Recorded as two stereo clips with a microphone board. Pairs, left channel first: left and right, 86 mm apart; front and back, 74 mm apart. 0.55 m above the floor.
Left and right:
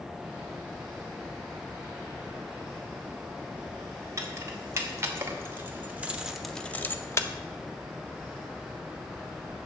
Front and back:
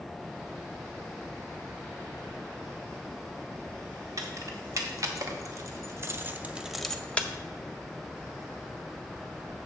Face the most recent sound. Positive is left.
turn(degrees=55)